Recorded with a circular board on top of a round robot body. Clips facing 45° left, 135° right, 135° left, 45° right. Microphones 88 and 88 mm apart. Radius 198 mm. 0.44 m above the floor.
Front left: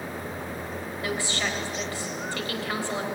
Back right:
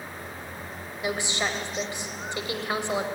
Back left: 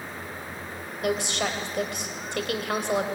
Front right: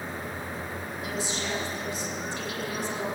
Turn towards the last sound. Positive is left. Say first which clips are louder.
# back right 2 dB, back left 7 dB
turn(degrees=155)